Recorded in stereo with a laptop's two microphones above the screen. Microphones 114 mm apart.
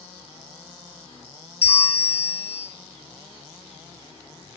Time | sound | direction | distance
1.6 | a bell | 55° left (ahead or behind) | 0.8 m